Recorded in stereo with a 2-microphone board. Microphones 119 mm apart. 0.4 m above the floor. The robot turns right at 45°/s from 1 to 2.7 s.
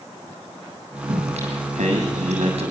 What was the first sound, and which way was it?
Singing, 130° right.